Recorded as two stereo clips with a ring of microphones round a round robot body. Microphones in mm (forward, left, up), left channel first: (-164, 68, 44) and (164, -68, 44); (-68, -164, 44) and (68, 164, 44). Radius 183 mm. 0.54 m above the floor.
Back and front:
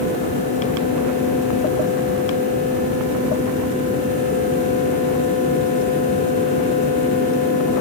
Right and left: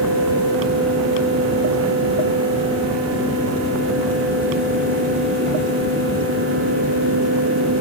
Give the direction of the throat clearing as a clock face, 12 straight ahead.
No throat clearing in this recording.